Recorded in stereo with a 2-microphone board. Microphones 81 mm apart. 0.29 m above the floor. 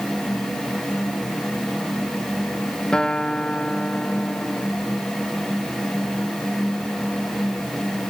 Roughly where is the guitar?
Centre.